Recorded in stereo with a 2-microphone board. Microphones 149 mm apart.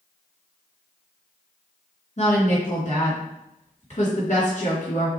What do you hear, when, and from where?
2.2 s a woman speaking: 55° left (ahead or behind), 2.5 m